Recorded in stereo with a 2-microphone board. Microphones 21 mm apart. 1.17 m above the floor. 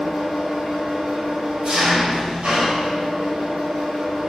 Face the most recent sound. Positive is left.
turn(degrees=-60)  # may be behind; listen again after turning